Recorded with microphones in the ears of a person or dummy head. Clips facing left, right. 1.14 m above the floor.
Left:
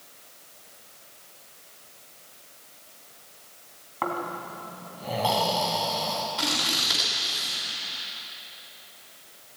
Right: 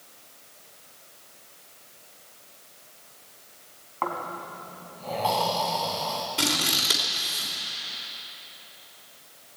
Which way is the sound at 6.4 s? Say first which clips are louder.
Right 2 dB; 35° right (ahead or behind).